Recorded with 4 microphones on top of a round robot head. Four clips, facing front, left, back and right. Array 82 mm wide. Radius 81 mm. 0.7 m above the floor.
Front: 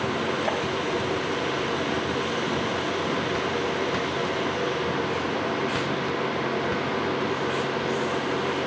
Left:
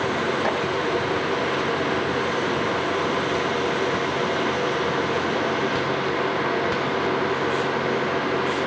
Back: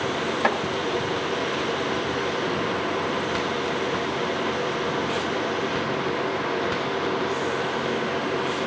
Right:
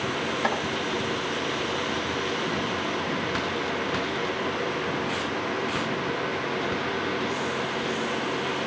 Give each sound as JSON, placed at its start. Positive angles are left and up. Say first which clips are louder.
{"t": 0.4, "sound": "chopping", "louder": "right 1 dB, back 8 dB", "azimuth_deg": -170, "distance_m": 7.0}